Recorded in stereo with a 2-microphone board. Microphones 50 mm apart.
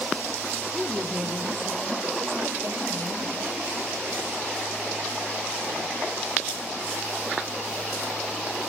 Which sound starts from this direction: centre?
A woman speaking, at 0.7 s.